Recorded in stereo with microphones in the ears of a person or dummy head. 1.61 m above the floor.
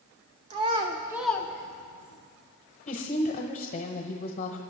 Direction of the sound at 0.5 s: 35° right (ahead or behind).